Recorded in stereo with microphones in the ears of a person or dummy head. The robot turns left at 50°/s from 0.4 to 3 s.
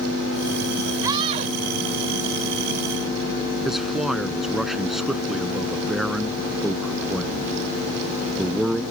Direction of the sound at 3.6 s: 5° right (ahead or behind).